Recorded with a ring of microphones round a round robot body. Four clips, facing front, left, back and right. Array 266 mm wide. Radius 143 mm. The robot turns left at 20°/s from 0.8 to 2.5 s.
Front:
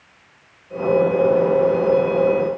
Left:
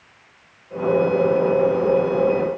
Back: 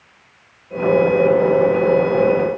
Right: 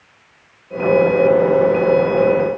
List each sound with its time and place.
Only background noise.